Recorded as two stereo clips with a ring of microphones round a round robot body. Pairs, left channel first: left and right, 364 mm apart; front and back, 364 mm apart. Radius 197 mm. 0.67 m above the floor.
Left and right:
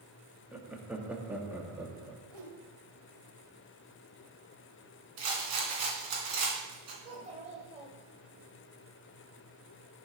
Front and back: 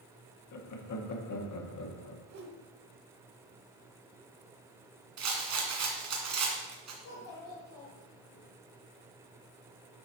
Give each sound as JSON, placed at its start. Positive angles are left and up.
{"t": 0.5, "sound": "laughter", "azimuth_deg": -5, "distance_m": 1.3}
{"t": 2.3, "sound": "a whoosh", "azimuth_deg": -130, "distance_m": 1.2}
{"t": 5.2, "sound": "a rattle", "azimuth_deg": -130, "distance_m": 2.0}
{"t": 7.0, "sound": "a child speaking", "azimuth_deg": -15, "distance_m": 1.6}